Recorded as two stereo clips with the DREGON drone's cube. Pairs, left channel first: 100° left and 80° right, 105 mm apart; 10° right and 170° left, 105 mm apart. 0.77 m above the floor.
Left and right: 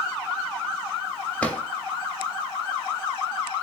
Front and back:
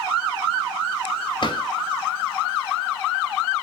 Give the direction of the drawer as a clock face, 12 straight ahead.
11 o'clock.